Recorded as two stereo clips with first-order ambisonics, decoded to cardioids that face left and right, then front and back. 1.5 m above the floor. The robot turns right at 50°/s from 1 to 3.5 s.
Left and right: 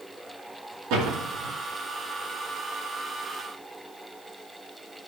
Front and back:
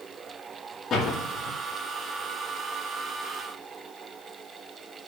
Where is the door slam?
65° right, 2.5 m; by 1.5 s 40° right, 2.5 m.